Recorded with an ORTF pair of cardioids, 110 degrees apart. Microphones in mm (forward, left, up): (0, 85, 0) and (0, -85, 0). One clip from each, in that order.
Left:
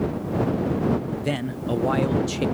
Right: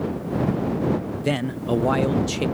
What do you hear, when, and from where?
1.2 s a man speaking: 10° right